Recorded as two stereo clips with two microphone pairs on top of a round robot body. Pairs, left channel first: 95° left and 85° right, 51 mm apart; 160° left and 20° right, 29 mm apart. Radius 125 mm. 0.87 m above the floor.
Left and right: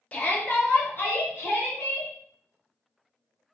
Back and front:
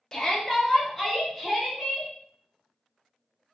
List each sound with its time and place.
0.1 s a shout: 110° left, 0.9 m; by 2.1 s 65° left, 1.5 m